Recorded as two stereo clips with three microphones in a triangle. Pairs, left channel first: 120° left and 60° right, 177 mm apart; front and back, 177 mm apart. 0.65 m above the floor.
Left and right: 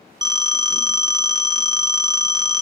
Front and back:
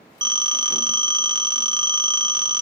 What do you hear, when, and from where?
0.2 s a phone ringing: 120° right, 0.8 m